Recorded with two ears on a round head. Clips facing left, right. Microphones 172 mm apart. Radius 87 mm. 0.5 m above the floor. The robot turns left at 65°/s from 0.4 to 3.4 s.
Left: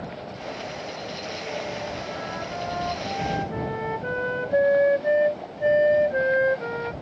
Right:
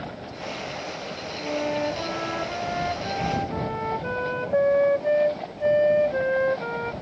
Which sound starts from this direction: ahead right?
A flute, at 1.4 s.